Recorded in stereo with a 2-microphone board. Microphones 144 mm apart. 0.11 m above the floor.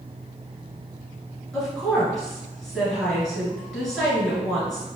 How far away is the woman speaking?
About 1.6 m.